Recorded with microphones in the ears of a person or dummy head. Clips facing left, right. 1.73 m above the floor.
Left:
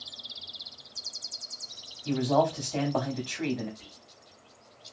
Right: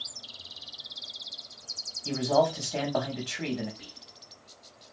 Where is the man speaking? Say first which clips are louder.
Even; 5° right (ahead or behind), 1.0 m.